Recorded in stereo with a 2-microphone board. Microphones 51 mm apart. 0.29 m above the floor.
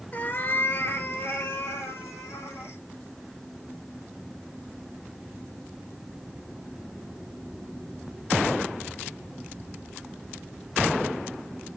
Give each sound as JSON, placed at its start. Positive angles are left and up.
{"t": 0.1, "sound": "a cat meowing", "side_deg": 35, "distance_m": 1.0}